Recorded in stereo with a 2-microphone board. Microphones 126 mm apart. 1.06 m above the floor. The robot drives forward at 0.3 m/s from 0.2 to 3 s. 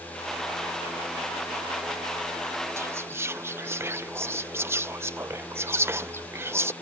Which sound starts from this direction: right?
Whispering, at 2.8 s.